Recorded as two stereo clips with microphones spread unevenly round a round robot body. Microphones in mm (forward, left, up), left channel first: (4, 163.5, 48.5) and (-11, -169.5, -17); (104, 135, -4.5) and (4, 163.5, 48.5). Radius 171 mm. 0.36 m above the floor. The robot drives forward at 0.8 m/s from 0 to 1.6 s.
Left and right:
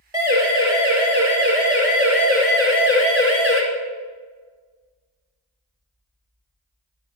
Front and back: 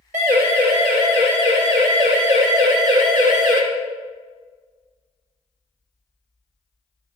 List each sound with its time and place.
0.1 s a siren: 170° right, 6 m; by 3.6 s 175° left, 4 m